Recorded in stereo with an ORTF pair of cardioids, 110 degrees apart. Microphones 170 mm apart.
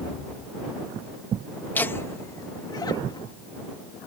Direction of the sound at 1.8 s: 10° left.